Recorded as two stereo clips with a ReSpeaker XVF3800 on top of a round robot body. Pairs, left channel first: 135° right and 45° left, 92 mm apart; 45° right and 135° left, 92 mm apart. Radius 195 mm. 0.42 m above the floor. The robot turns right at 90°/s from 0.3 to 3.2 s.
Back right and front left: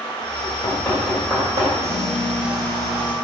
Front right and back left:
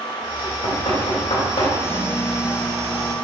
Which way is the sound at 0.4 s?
115° right.